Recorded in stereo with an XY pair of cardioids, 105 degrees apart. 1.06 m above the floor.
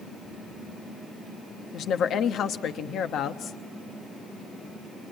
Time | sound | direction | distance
1.7 | a woman speaking | 65° left | 1.1 m